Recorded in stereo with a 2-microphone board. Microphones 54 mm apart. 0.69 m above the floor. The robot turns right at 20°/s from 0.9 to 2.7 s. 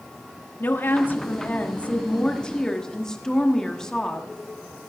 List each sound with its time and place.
0.6 s a woman speaking: 130° left, 1.2 m; by 4.3 s 165° left, 1.2 m